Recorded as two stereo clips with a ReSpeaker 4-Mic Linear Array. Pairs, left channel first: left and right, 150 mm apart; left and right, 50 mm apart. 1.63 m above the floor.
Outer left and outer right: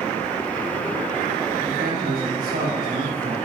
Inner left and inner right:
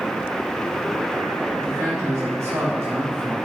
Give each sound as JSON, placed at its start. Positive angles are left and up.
{"t": 1.6, "sound": "a man speaking", "side_deg": -75, "distance_m": 4.5}